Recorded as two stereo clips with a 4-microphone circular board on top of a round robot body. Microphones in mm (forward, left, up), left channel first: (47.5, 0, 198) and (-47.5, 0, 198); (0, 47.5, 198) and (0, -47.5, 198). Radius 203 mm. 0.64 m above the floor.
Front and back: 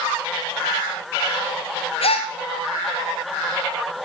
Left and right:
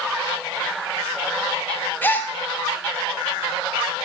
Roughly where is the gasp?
Ahead.